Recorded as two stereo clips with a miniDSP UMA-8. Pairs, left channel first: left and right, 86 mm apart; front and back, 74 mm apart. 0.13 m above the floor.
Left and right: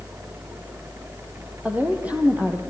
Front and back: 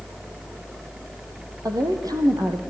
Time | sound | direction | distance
1.6 | a woman speaking | 160° right | 3.5 m